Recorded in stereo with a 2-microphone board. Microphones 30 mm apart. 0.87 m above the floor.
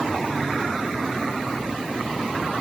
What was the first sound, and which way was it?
Only background noise.